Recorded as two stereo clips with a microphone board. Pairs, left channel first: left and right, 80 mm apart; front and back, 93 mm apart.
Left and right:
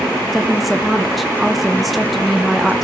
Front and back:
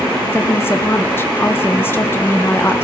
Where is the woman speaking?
Straight ahead, 0.6 m.